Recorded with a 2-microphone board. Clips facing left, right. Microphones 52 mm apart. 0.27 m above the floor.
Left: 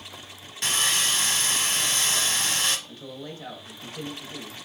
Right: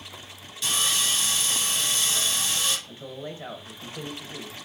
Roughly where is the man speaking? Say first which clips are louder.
Right 1 dB; right.